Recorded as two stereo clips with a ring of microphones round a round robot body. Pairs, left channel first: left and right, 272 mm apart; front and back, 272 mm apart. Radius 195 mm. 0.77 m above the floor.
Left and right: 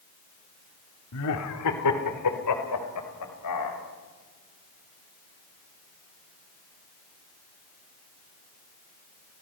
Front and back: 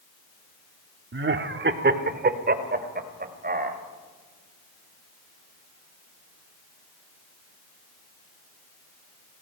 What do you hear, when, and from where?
1.1 s laughter: 135° left, 1.6 m; by 3.8 s 125° left, 4 m